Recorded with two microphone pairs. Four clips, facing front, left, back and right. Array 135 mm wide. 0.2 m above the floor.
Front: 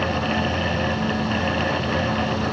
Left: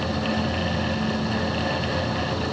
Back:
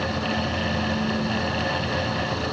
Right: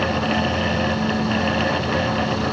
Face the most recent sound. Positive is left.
No sound to turn to.